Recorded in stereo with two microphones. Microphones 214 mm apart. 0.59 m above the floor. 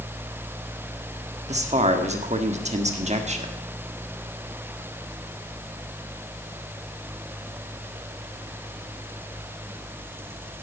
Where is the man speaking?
30° right (ahead or behind), 1.4 m.